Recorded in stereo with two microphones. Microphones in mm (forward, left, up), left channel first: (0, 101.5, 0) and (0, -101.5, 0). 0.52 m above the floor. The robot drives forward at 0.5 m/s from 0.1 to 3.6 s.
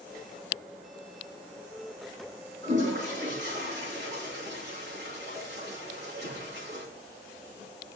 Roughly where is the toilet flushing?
Right.